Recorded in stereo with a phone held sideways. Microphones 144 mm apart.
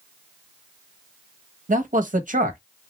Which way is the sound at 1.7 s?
65° right (ahead or behind).